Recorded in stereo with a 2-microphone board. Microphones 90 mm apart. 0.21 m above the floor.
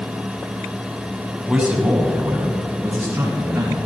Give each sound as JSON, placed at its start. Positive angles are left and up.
{"t": 1.5, "sound": "a man speaking", "side_deg": -10, "distance_m": 1.2}